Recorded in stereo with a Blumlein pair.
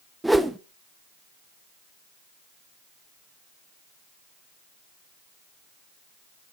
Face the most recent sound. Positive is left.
turn(degrees=-5)